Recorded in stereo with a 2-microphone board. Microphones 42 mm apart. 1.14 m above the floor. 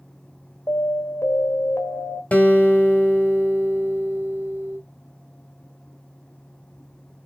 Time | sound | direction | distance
0.7 | an alarm | 70° left (ahead or behind) | 1.5 m
2.3 | a guitar | 35° left (ahead or behind) | 1.4 m